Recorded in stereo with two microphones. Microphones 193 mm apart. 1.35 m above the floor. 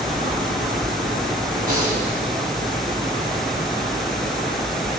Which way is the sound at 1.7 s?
45° right (ahead or behind).